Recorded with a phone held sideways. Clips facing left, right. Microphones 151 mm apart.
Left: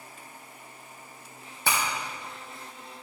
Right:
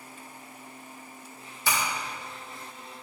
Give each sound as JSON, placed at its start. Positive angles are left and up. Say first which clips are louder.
{"t": 1.7, "sound": "breaking glass", "louder": "left 1 dB", "side_deg": 60, "distance_m": 2.5}